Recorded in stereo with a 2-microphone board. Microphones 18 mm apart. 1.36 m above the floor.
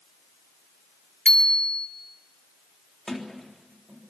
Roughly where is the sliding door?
Left.